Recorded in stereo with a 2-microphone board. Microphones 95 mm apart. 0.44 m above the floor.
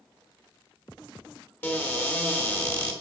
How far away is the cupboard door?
About 1.2 m.